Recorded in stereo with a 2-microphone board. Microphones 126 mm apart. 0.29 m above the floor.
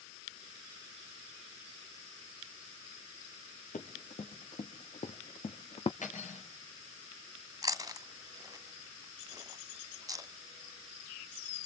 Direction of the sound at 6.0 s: 80° left.